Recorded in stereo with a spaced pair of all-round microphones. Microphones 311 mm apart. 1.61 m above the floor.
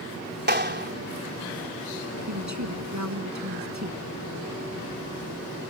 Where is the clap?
35° right (ahead or behind).